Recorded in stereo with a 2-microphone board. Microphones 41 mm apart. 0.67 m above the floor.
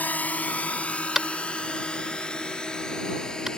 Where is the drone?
45° left (ahead or behind); by 3.6 s 20° left (ahead or behind).